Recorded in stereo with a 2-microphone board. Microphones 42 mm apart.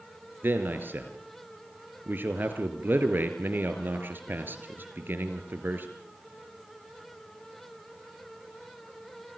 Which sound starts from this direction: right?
A man speaking, at 0.4 s.